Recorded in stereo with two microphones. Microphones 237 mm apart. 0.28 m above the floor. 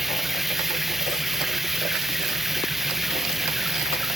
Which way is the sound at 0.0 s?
Centre (ahead or behind).